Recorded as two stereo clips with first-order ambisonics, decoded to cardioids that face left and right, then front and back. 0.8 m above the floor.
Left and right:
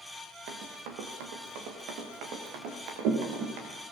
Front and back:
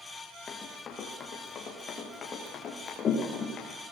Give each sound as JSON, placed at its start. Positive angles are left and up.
{"t": 0.5, "sound": "running footsteps", "azimuth_deg": -65, "distance_m": 5.0}